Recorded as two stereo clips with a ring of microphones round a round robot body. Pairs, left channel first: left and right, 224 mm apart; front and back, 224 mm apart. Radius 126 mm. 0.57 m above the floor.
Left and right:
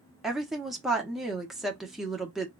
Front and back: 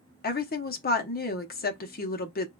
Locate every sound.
0.2 s a woman speaking: straight ahead, 0.8 m